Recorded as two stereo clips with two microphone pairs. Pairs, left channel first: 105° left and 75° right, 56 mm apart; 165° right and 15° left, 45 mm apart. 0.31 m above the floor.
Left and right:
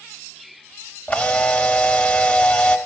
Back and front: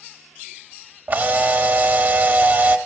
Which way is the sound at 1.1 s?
45° left.